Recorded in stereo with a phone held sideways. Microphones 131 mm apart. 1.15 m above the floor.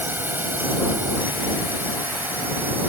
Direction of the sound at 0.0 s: 15° right (ahead or behind).